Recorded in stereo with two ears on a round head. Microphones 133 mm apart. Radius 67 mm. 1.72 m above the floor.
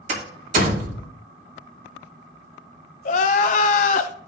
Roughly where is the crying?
Left.